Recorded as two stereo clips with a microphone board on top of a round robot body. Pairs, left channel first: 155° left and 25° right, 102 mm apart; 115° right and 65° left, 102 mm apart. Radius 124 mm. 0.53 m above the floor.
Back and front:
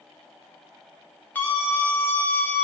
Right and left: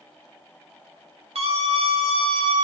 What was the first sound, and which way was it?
A scream, 85° left.